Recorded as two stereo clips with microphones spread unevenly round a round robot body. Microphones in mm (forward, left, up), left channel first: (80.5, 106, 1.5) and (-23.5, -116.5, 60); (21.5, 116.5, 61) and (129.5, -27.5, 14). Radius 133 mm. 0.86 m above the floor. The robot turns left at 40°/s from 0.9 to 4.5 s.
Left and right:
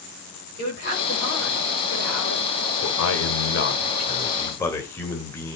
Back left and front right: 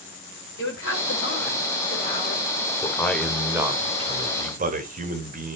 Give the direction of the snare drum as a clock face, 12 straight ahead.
I don't hear a snare drum.